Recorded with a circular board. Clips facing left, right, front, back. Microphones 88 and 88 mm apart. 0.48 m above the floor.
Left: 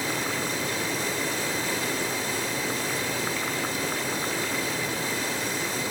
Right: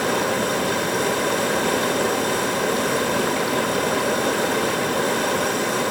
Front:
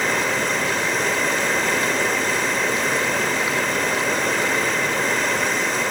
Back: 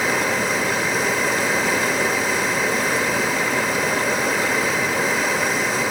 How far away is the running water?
About 1.1 m.